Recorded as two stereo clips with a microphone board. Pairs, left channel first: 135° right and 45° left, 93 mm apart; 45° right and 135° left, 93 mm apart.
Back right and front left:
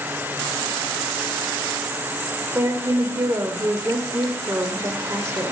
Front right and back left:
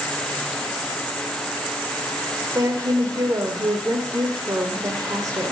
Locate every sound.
2.5 s a woman speaking: 100° left, 1.4 m